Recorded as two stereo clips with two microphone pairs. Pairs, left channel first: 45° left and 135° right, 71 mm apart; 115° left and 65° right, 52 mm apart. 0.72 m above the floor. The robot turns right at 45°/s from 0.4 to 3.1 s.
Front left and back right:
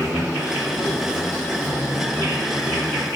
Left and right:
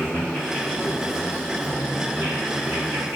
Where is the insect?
140° right, 1.8 m; by 3.2 s 20° right, 1.8 m.